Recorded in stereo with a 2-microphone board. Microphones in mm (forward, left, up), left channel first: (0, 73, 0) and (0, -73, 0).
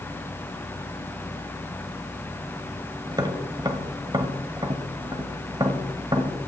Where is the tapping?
30° right (ahead or behind), 1.0 m.